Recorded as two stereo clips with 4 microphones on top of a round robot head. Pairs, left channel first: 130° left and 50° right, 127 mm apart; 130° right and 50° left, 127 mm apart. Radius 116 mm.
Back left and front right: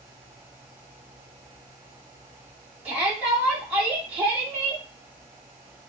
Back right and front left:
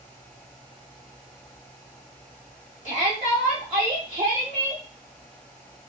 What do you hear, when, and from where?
2.9 s a shout: 25° left, 2.0 m